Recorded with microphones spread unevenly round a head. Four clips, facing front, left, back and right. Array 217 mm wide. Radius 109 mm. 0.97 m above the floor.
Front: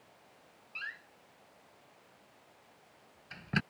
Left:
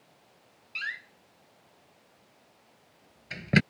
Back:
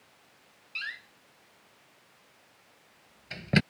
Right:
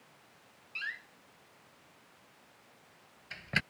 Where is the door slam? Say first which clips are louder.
Left 4 dB, back 4 dB; 115° left.